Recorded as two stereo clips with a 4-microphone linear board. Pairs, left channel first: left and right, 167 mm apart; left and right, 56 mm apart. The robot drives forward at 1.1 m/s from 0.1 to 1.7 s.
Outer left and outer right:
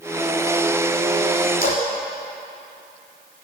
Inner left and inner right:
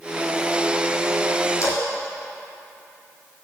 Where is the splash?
60° left (ahead or behind), 3.5 m.